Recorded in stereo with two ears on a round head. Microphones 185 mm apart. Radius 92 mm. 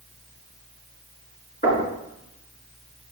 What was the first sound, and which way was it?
Knocking, 35° left (ahead or behind).